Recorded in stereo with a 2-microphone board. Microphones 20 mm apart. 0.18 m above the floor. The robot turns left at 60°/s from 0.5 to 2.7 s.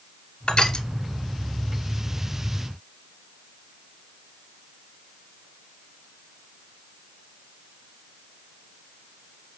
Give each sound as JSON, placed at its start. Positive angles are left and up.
{"t": 0.5, "sound": "crushing", "side_deg": 60, "distance_m": 0.8}